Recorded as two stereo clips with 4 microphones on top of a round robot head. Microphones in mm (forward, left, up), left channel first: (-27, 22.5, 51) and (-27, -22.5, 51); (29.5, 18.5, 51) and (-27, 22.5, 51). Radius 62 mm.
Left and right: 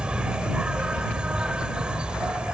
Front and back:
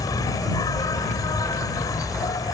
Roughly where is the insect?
Ahead.